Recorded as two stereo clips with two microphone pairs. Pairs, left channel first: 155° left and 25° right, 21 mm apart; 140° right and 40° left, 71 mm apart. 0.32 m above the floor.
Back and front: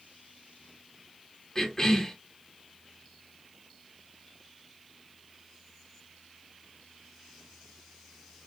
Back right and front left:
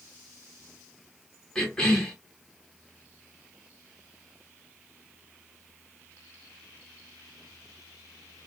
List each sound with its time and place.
1.6 s a cough: 150° left, 1.6 m